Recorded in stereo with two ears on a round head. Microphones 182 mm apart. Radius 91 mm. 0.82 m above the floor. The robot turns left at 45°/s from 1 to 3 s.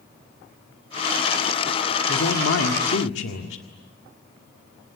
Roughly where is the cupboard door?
I don't hear a cupboard door.